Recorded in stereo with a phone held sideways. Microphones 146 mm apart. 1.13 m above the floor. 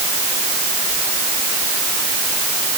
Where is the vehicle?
No vehicle in this recording.